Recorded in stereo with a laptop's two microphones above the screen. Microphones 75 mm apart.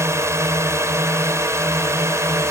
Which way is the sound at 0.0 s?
40° right (ahead or behind).